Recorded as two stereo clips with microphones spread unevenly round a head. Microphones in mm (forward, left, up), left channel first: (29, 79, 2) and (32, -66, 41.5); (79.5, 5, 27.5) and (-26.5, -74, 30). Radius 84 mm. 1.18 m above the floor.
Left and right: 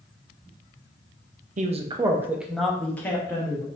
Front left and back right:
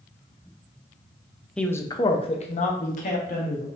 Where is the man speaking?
45° right, 0.6 m; by 3.7 s 25° left, 1.4 m.